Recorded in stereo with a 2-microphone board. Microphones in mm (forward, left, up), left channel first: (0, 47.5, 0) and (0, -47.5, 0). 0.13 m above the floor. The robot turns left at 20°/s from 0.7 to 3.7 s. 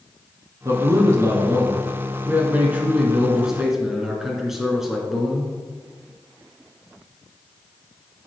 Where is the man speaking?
115° right, 2.0 m; by 5.5 s 175° right, 2.0 m.